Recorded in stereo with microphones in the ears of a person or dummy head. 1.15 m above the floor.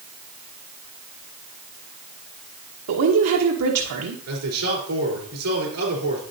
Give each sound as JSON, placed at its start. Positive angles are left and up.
{"t": 2.9, "sound": "a woman speaking", "side_deg": -85, "distance_m": 0.9}
{"t": 4.3, "sound": "a man speaking", "side_deg": -85, "distance_m": 3.5}